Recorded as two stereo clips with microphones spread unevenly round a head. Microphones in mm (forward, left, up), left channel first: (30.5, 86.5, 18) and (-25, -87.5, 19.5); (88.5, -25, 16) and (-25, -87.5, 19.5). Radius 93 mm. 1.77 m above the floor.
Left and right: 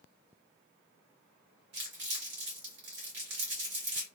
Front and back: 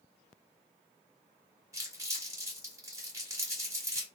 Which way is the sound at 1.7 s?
95° right.